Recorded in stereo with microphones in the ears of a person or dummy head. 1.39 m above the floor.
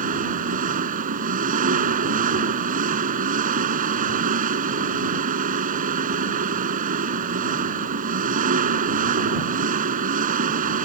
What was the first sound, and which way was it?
An engine running, 45° right (ahead or behind).